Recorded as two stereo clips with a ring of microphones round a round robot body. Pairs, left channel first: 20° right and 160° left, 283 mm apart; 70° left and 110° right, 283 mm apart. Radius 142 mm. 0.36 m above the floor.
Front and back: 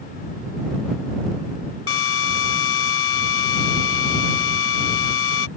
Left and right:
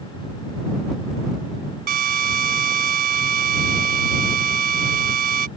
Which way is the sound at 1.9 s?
60° right.